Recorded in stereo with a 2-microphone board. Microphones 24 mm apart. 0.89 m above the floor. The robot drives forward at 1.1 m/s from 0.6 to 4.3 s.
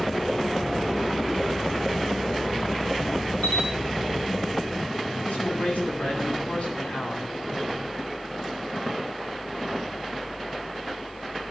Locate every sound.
3.4 s a camera shutter: 80° left, 5 m; by 3.7 s 85° left, 5 m
5.2 s a man speaking: 70° left (ahead or behind), 8 m